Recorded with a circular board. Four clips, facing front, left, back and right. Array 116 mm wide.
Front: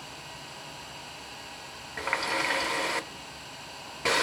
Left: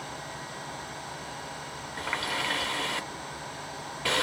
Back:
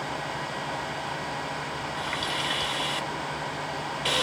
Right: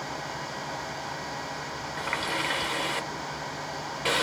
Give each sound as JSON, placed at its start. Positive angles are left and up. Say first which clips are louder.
{"t": 2.0, "sound": "a running tap", "louder": "right 1 dB, front 4 dB", "azimuth_deg": -10, "distance_m": 0.6}